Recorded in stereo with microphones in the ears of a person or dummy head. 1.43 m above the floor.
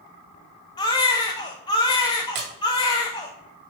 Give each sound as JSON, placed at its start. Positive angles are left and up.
{"t": 0.8, "sound": "a baby crying", "side_deg": 15, "distance_m": 1.1}
{"t": 2.4, "sound": "a splash", "side_deg": -55, "distance_m": 2.0}